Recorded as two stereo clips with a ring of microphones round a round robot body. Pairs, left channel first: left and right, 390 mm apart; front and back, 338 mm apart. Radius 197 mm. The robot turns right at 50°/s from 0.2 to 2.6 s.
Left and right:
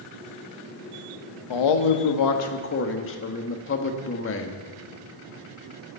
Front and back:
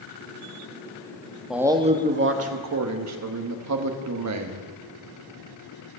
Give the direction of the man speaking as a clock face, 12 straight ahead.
9 o'clock.